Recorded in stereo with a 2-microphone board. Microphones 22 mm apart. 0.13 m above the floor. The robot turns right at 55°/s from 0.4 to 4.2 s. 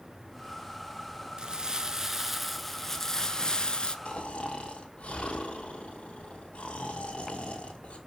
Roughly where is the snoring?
Left.